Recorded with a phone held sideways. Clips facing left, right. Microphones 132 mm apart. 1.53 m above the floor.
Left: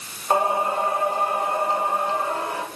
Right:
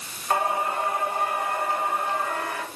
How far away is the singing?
About 4.5 m.